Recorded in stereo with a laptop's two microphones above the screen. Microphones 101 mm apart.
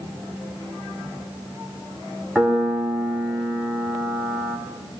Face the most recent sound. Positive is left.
turn(degrees=-5)  # may be behind; listen again after turning